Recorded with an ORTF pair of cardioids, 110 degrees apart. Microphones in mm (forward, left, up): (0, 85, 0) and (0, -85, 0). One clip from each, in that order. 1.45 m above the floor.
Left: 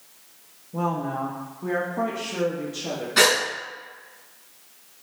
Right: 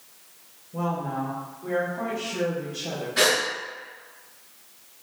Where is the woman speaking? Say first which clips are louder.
Left 2 dB; 30° left, 1.1 m; by 3.1 s 80° left, 2.5 m.